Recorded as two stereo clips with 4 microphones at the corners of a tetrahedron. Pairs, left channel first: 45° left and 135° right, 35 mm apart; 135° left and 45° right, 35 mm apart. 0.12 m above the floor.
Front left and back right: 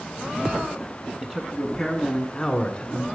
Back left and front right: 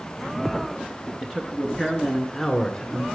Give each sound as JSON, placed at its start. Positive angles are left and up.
{"t": 1.2, "sound": "a man speaking", "azimuth_deg": -100, "distance_m": 1.3}